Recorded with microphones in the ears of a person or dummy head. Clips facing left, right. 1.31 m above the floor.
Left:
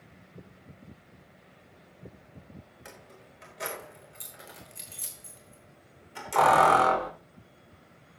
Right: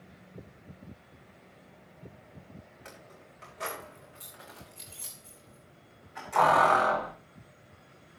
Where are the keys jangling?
15° left (ahead or behind), 4 m; by 7.1 s 50° left (ahead or behind), 3 m.